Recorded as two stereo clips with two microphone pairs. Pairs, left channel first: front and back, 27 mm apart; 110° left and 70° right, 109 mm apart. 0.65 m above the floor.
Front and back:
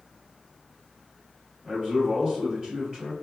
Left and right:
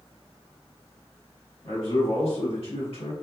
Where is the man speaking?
115° left, 1.5 m.